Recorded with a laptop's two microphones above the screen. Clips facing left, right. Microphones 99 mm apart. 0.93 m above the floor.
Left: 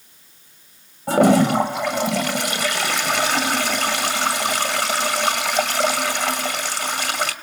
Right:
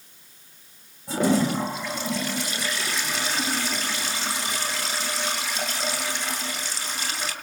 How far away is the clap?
No clap in this recording.